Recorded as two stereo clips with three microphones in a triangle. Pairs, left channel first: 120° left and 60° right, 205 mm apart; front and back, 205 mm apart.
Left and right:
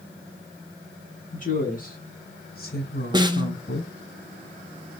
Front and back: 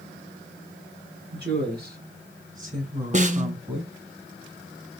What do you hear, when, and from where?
1.3 s a woman speaking: 160° left, 2.5 m; by 3.9 s 120° left, 2.5 m
3.1 s a snare drum: 125° right, 0.8 m